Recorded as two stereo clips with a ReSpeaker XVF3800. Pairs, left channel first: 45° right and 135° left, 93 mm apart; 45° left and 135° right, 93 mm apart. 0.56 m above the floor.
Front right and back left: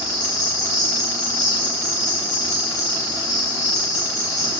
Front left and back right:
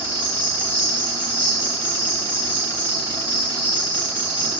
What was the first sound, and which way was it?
An insect, 20° right.